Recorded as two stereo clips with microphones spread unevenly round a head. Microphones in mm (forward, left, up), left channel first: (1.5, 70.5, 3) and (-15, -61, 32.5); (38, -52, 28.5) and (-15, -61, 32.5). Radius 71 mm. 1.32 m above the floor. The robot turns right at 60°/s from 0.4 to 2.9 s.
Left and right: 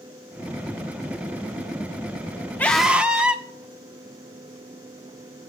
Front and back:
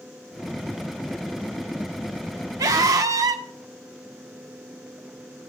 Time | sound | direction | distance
2.6 | a scream | 160° left | 1.1 m